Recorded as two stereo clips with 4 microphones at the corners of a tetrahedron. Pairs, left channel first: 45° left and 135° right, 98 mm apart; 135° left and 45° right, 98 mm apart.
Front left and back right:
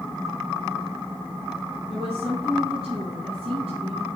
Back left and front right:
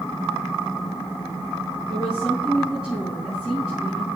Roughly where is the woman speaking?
Behind right.